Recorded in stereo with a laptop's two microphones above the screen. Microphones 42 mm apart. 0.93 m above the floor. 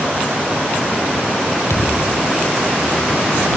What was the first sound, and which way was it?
A thud, 85° left.